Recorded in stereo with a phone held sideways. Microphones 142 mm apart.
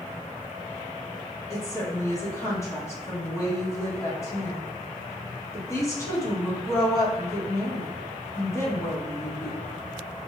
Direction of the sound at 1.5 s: 20° left (ahead or behind).